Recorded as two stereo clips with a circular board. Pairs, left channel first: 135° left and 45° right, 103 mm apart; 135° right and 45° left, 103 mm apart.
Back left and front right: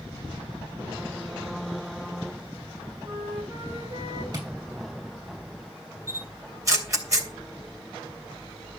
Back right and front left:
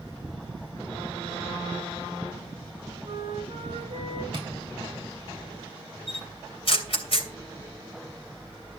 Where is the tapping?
5° left, 5.5 m.